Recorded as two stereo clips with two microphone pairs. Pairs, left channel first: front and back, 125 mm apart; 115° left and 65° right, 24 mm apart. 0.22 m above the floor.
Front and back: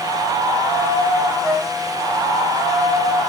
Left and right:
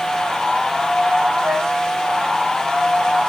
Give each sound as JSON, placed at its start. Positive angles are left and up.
{"t": 1.4, "sound": "a flute", "azimuth_deg": -100, "distance_m": 9.0}